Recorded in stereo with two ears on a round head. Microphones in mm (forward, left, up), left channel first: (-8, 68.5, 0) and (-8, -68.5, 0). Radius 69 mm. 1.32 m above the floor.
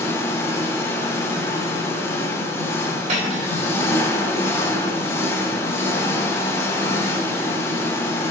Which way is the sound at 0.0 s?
15° left (ahead or behind).